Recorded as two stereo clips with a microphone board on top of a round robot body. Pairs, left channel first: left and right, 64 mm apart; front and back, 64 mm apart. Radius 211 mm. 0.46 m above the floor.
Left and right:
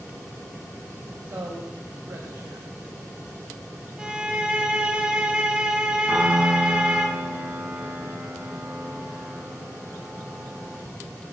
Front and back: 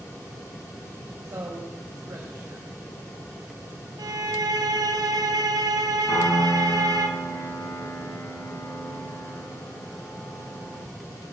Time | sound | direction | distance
1.2 | a man speaking | 140° right | 3 m
4.0 | a violin | 165° right | 1.9 m
6.1 | a piano | 15° right | 7.5 m